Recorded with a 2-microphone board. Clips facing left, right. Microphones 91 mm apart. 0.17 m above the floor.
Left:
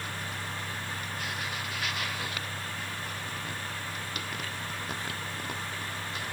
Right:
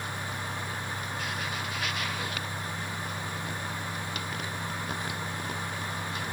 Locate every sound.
Only background noise.